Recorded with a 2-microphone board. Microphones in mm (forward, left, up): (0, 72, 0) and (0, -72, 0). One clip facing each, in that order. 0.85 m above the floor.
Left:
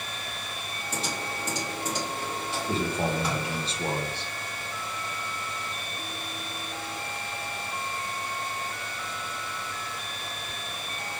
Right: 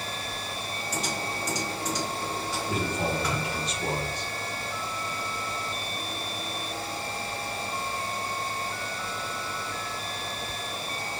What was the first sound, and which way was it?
Typing on a keyboard, 25° left (ahead or behind).